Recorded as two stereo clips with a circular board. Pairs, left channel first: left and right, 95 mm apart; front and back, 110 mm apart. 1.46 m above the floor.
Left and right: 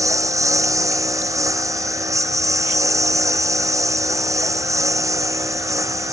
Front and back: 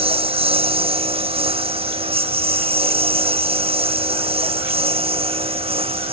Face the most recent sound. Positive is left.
turn(degrees=-150)